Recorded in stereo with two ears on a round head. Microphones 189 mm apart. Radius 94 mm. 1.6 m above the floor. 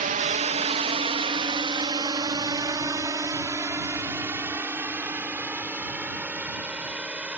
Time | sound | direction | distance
0.0 | a drone | 40° right (ahead or behind) | ?